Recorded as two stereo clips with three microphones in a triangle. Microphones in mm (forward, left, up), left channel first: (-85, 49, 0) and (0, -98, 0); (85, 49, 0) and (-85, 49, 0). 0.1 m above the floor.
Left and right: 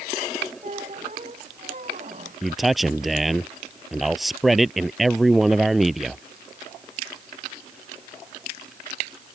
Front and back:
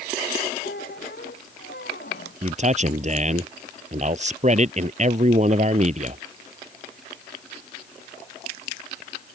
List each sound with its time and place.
0.6 s a squeak: 15° right
2.4 s a man speaking: 150° right